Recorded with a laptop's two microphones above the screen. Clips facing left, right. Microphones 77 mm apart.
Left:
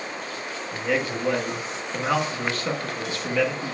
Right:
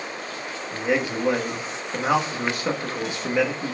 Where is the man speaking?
15° right (ahead or behind), 1.3 m.